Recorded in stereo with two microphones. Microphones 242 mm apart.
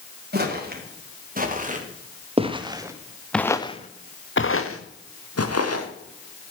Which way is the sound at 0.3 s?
45° right (ahead or behind).